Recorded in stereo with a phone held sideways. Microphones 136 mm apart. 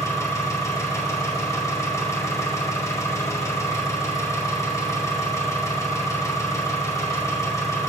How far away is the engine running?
About 2 m.